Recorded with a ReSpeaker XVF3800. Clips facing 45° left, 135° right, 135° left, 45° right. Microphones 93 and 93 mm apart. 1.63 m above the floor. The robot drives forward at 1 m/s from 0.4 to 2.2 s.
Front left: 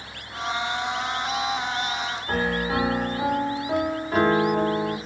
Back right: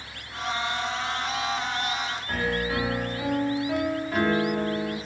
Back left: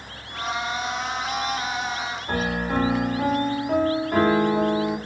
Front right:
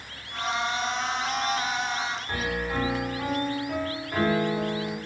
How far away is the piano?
About 2 m.